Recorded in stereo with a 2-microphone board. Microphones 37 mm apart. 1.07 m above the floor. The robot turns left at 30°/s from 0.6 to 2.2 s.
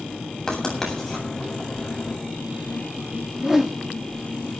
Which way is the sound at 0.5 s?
20° left (ahead or behind).